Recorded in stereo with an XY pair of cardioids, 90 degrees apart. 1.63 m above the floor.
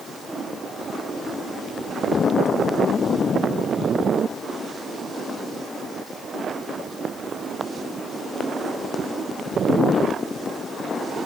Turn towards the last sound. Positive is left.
No sound to turn to.